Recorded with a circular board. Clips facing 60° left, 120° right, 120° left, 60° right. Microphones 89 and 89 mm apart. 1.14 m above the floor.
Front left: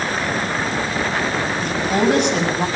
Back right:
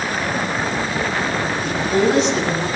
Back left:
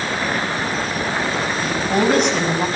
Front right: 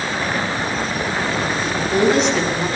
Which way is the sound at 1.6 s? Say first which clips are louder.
Back right 1 dB, front right 1 dB; 90° left.